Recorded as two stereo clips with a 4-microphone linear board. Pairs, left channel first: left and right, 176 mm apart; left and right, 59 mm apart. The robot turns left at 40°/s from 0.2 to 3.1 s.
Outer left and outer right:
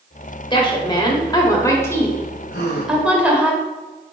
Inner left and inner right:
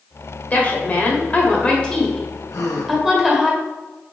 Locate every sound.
0.5 s a woman speaking: 25° left (ahead or behind), 1.6 m; by 3.5 s 5° right (ahead or behind), 1.6 m
2.5 s a gasp: 80° left, 2 m; by 3.0 s 70° left (ahead or behind), 2 m